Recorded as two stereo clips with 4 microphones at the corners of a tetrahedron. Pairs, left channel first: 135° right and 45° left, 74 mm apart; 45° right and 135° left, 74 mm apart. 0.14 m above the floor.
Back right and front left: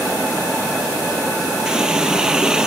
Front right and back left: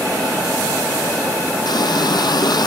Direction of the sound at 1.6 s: 35° right.